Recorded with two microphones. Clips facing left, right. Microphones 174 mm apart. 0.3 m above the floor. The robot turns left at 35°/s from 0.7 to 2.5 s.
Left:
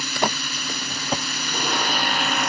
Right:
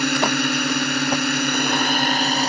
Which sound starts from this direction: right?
A drone, at 0.0 s.